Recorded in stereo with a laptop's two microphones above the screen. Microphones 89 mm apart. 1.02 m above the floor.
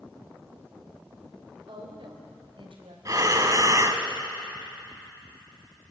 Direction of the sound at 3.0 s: 40° right (ahead or behind).